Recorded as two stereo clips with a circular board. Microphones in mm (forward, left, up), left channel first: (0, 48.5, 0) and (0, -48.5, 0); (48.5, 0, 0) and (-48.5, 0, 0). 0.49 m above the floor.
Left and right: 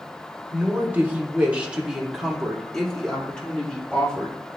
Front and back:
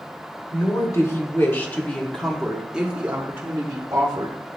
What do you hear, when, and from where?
0.5 s a woman speaking: 30° right, 1.9 m; by 4.4 s 155° left, 1.8 m